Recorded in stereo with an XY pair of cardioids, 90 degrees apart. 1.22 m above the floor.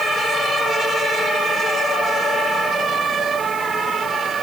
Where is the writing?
No writing in this recording.